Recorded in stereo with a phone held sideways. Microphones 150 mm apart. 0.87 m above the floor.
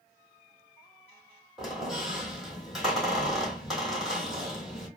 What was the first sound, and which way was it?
A squeak, centre (ahead or behind).